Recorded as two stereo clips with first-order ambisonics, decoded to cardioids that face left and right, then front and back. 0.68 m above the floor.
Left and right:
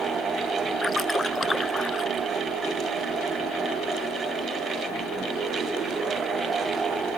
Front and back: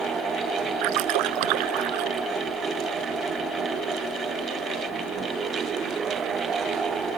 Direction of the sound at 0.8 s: 175° left.